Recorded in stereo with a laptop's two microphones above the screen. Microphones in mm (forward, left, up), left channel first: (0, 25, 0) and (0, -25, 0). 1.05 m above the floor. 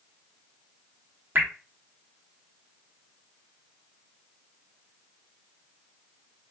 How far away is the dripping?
About 0.7 m.